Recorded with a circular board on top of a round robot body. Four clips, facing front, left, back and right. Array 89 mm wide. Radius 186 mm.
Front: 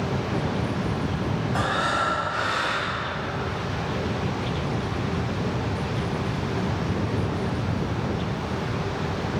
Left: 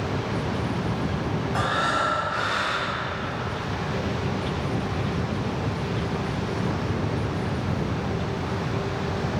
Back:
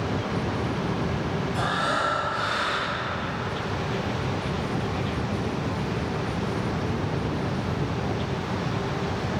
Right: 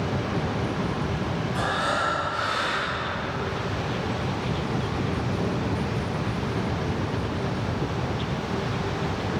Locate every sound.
1.5 s breathing: 60° left, 2.5 m